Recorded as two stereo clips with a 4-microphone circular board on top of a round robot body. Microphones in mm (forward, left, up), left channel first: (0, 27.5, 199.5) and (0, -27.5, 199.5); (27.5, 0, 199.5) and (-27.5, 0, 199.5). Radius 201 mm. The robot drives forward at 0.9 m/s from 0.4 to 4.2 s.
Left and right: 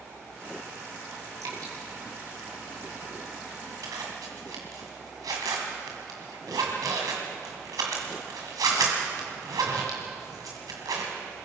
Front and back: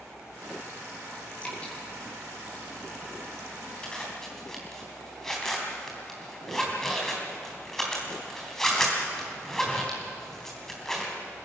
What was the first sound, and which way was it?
Dripping, 65° right.